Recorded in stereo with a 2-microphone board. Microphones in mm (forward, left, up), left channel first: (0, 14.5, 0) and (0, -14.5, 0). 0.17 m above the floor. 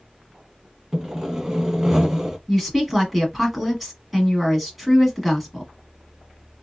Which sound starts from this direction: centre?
A woman speaking, at 2.5 s.